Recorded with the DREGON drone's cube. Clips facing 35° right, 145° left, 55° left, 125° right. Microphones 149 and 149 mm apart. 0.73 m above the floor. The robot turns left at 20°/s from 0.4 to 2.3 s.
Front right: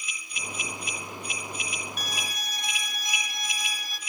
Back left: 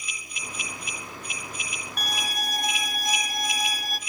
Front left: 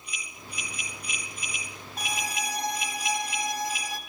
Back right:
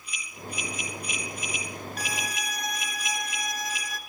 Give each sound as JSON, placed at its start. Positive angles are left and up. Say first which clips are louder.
{"t": 2.0, "sound": "a violin", "louder": "back left 4 dB, front left 5 dB", "azimuth_deg": 120, "distance_m": 1.0}